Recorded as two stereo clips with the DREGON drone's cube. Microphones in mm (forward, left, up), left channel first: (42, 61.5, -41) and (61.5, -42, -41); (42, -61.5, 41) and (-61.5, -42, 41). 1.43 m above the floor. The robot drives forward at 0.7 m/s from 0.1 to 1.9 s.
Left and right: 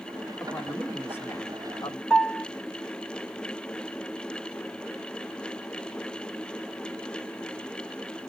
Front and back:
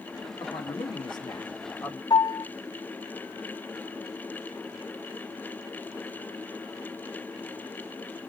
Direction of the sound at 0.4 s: 20° left.